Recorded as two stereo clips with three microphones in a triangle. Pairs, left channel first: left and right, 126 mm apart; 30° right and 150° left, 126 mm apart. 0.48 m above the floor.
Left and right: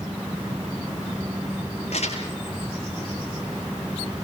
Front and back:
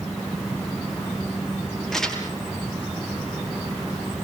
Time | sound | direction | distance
1.9 | crumpling | 55° left | 6 m